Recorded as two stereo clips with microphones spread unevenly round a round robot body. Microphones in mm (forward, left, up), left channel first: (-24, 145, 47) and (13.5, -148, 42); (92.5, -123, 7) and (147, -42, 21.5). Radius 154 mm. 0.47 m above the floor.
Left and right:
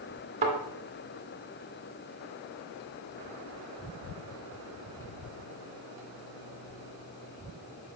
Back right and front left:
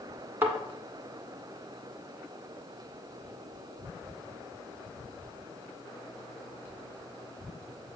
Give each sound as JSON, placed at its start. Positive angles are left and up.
{"t": 0.4, "sound": "a thud", "azimuth_deg": -15, "distance_m": 2.0}